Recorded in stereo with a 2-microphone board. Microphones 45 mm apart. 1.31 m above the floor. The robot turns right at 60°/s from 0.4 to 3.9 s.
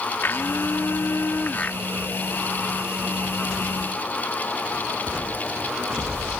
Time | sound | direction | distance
0.2 | a blender | 65° left | ?